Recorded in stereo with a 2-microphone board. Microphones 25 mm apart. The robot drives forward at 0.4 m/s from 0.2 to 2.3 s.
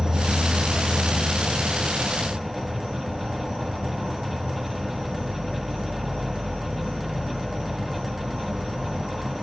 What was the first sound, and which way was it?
An insect, 30° right (ahead or behind).